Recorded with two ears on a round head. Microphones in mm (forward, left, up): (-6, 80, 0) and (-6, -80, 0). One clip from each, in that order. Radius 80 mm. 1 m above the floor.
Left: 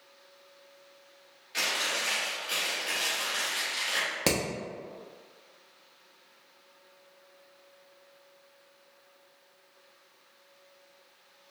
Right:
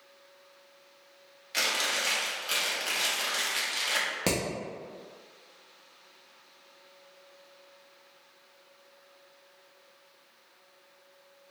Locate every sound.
1.5 s chewing: 45° right (ahead or behind), 1.2 m
4.3 s hammering: 15° left (ahead or behind), 0.9 m